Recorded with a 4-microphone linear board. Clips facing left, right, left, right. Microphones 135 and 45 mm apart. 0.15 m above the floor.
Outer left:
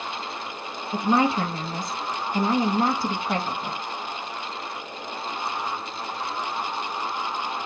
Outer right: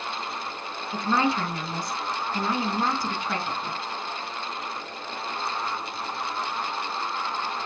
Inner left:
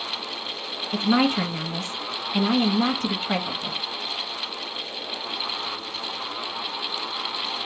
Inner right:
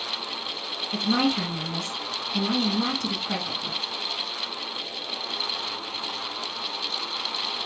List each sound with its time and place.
0.9 s a woman speaking: 25° left (ahead or behind), 1.1 m